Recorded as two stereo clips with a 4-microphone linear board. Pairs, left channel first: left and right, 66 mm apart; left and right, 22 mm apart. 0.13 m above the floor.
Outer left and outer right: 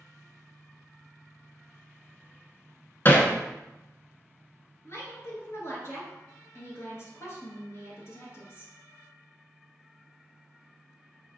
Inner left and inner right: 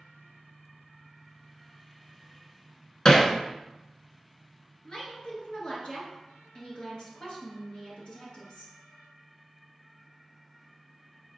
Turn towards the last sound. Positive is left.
turn(degrees=40)  # may be behind; listen again after turning